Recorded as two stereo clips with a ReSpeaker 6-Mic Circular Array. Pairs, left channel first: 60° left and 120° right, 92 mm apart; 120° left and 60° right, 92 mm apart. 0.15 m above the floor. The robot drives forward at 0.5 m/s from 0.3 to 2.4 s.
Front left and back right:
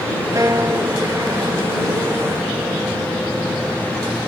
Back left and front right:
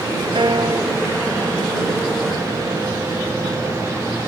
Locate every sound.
0.3 s a piano: 70° right; by 3.1 s 95° right